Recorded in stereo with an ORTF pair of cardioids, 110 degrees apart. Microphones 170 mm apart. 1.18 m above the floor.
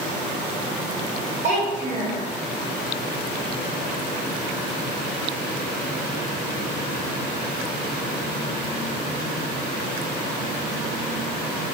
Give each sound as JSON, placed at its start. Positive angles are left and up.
{"t": 1.4, "sound": "a child speaking", "azimuth_deg": -50, "distance_m": 1.2}